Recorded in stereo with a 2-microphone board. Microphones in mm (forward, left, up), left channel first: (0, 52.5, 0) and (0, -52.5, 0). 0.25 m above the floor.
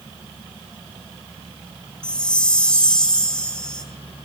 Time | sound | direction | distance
2.0 | a chime | 10° left (ahead or behind) | 0.5 m